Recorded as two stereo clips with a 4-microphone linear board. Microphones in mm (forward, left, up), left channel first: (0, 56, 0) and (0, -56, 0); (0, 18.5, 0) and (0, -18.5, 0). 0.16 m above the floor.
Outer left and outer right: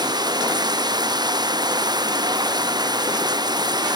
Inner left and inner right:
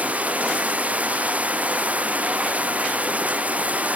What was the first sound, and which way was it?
Running water, 40° right (ahead or behind).